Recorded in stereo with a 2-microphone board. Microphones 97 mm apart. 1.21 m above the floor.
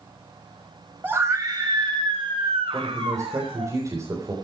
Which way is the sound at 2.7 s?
35° right (ahead or behind).